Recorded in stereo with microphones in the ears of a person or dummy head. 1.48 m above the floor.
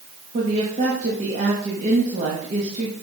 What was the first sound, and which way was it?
A woman speaking, 40° right (ahead or behind).